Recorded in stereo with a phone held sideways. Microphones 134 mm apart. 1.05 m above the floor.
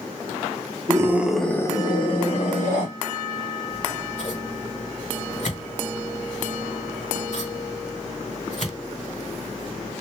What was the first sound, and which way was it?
A scream, 25° right (ahead or behind).